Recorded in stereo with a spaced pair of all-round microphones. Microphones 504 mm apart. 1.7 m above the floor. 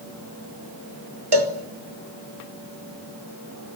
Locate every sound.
1.3 s a cowbell: 50° right (ahead or behind), 2 m